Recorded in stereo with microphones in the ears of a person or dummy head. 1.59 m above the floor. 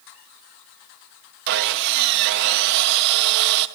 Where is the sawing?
60° right (ahead or behind), 0.9 m.